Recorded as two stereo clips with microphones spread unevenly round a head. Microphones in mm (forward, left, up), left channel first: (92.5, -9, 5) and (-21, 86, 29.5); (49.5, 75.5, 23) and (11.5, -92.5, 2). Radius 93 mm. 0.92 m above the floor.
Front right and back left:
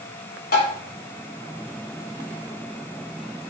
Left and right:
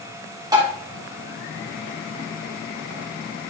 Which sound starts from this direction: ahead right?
Tapping, at 0.5 s.